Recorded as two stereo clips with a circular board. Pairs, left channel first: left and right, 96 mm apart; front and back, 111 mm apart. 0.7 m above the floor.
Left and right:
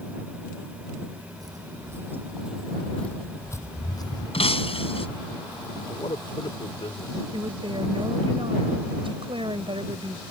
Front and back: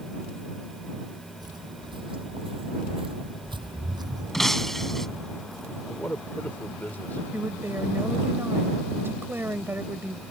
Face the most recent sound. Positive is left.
turn(degrees=-110)